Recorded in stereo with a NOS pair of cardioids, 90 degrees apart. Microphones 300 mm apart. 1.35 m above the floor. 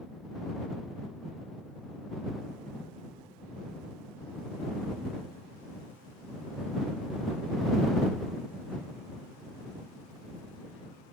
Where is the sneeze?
I don't hear a sneeze.